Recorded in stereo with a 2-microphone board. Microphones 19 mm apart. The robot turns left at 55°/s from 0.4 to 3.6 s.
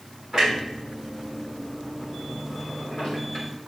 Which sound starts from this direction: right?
A clunk, at 0.3 s.